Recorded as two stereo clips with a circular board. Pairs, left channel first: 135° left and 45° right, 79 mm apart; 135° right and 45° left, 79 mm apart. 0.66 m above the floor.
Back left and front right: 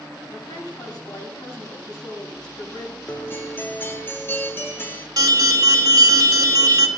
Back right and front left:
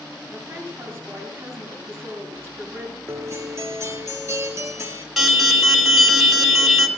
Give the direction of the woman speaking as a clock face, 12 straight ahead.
9 o'clock.